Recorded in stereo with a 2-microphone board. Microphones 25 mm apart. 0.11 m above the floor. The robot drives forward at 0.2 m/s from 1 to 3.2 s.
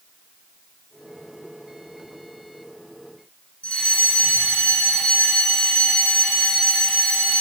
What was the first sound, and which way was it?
A fire alarm, 65° left (ahead or behind).